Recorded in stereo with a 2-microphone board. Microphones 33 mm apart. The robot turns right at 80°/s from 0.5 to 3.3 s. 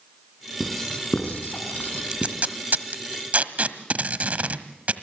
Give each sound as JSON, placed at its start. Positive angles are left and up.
{"t": 0.6, "sound": "writing", "side_deg": 0, "distance_m": 3.5}
{"t": 2.1, "sound": "tape being pulled", "side_deg": -25, "distance_m": 1.2}